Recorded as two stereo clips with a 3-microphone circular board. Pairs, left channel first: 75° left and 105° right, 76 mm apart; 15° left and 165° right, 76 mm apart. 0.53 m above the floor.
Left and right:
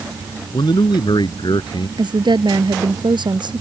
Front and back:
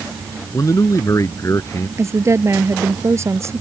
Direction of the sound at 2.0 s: 110° right.